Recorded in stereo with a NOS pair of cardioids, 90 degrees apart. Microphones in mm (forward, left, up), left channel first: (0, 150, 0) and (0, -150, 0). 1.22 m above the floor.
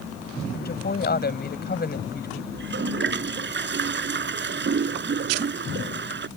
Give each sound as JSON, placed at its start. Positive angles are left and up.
{"t": 0.5, "sound": "a woman speaking", "azimuth_deg": 30}
{"t": 2.5, "sound": "a toilet flushing", "azimuth_deg": -40}